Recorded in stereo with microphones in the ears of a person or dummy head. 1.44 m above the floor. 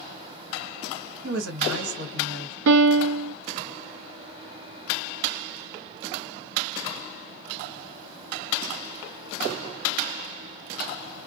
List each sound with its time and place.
1.2 s a woman speaking: 75° right (ahead or behind), 1.4 m
2.7 s a piano: 80° right, 0.6 m